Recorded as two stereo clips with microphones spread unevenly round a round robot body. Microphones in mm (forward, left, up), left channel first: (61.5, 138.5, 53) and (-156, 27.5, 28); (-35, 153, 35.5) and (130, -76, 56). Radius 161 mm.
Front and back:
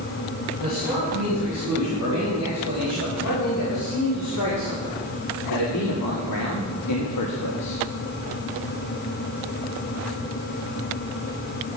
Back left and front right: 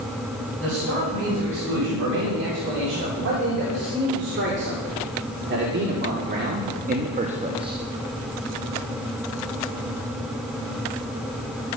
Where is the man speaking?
10° right, 6 m; by 7.8 s 25° left, 1.1 m.